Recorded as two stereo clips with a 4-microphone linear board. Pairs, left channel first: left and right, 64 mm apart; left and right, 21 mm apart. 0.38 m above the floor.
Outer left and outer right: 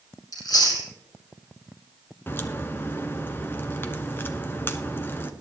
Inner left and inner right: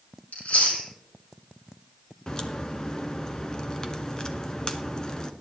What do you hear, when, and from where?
0.3 s chewing: 90° left, 4 m
2.3 s a crack: 35° left (ahead or behind), 1.0 m